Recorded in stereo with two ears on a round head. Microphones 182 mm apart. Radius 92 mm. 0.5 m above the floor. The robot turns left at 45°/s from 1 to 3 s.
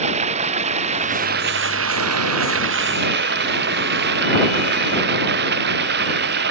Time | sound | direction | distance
0.0 | running water | 35° right | ?